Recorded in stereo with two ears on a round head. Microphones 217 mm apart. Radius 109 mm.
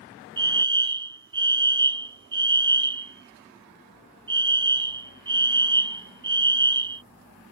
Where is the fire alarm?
20° right (ahead or behind).